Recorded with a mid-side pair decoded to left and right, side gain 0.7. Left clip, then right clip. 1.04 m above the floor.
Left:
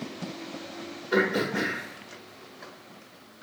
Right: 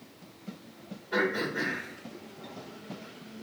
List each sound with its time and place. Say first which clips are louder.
1.1 s throat clearing: left 4 dB; 45° left, 1.6 m